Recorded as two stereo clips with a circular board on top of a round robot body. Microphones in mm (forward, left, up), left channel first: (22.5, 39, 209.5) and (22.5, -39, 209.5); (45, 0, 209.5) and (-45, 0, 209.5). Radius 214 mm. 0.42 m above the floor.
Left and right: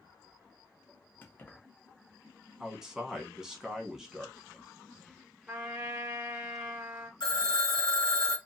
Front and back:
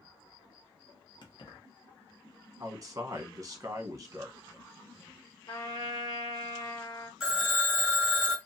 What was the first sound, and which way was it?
Keys jangling, 25° left.